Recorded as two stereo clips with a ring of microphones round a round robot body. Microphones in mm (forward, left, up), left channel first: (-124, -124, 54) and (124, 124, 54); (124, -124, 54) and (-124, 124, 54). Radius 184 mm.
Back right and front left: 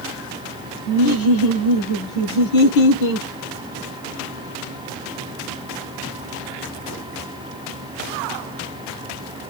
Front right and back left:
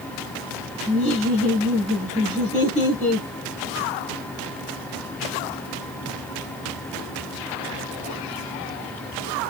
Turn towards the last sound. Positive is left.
turn(degrees=-110)